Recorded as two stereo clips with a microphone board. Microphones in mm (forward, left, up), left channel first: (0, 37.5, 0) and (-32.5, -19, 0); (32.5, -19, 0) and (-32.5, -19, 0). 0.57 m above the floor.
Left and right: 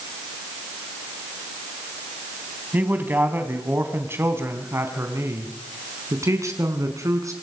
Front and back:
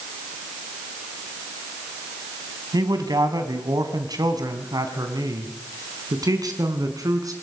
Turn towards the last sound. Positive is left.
turn(degrees=-155)